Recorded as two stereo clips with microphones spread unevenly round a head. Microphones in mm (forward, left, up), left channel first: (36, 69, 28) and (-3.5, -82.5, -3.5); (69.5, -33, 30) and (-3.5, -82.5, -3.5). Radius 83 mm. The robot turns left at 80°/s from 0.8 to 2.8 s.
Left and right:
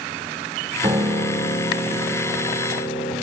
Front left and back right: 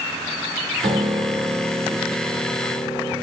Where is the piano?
170° right, 2.5 m; by 3.1 s 35° left, 2.5 m.